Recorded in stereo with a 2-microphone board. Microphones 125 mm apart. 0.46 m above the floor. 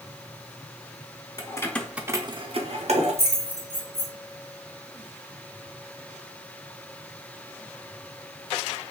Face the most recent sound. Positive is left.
turn(degrees=-65)  # may be behind; listen again after turning